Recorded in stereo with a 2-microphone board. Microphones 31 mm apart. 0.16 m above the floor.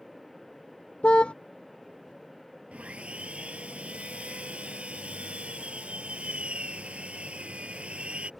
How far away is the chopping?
I don't hear chopping.